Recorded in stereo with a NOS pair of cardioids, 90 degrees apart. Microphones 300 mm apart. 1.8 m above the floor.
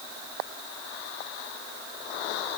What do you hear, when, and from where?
Only background noise.